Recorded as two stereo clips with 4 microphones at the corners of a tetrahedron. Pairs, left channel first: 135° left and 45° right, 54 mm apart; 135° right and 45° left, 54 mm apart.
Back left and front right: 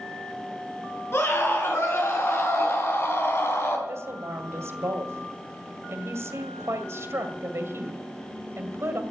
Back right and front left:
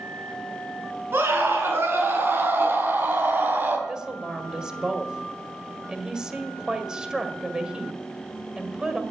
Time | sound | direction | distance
1.1 | a scream | 95° left | 6.5 m
3.9 | a woman speaking | 30° right | 1.9 m